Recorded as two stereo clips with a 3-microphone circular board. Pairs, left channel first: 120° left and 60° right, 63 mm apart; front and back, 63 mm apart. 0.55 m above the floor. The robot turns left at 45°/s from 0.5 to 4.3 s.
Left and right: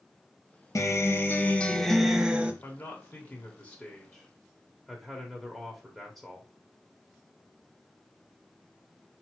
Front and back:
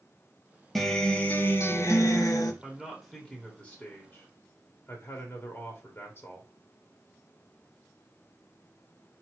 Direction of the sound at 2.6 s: 105° left.